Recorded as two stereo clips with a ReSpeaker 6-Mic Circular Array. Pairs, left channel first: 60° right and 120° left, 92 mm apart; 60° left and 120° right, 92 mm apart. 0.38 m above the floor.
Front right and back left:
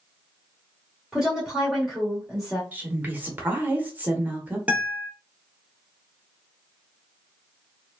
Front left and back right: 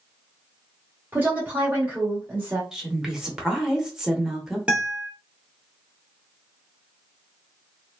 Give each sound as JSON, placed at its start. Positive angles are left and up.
{"t": 1.1, "sound": "a woman speaking", "azimuth_deg": -165, "distance_m": 1.2}
{"t": 2.7, "sound": "a woman speaking", "azimuth_deg": 160, "distance_m": 0.8}
{"t": 4.7, "sound": "a guitar", "azimuth_deg": 175, "distance_m": 0.8}